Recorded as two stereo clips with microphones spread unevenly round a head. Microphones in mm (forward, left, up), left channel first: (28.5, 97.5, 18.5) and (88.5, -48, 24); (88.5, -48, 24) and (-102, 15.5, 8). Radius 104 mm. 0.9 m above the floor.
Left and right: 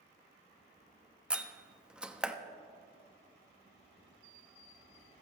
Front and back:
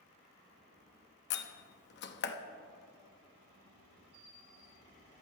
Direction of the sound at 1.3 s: 15° left.